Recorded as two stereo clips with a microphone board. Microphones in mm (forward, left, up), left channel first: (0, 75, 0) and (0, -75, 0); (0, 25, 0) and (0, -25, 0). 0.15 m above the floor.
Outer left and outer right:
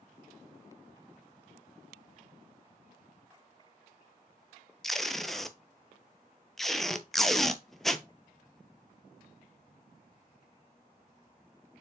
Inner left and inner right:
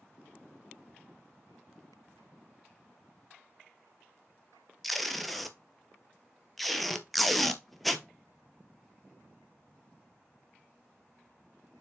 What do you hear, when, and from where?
4.8 s tape being pulled: centre (ahead or behind), 0.6 m